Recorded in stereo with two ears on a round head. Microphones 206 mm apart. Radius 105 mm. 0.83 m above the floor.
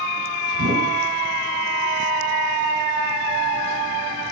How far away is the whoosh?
About 4.5 m.